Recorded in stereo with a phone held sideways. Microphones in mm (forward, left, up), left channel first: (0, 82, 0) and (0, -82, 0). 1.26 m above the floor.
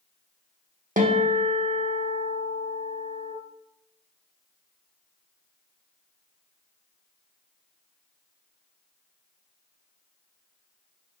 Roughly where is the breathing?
No breathing in this recording.